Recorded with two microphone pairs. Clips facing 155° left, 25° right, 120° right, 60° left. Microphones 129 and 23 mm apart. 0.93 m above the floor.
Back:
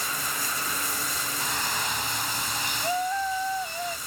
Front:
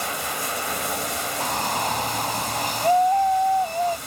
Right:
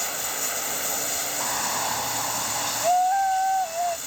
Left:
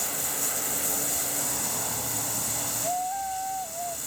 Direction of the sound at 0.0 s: 50° right.